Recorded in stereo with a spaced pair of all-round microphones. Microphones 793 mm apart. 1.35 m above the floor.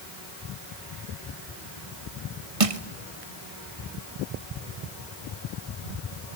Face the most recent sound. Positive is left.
turn(degrees=-45)  # may be behind; listen again after turning